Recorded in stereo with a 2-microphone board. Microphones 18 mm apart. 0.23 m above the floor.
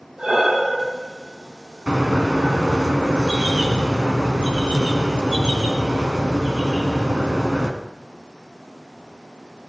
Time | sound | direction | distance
0.2 | breathing | 50° right (ahead or behind) | 4.5 m
1.9 | a bird | 60° right (ahead or behind) | 2.5 m